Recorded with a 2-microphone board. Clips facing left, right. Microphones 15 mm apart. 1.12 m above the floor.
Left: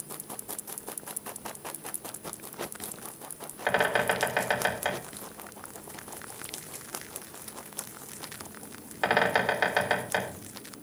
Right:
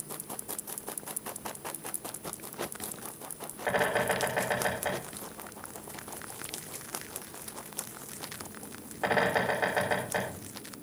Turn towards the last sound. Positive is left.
turn(degrees=60)  # may be behind; listen again after turning